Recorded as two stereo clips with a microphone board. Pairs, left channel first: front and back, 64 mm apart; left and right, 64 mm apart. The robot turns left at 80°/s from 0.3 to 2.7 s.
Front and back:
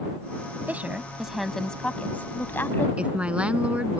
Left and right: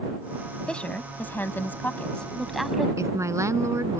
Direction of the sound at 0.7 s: 155° left.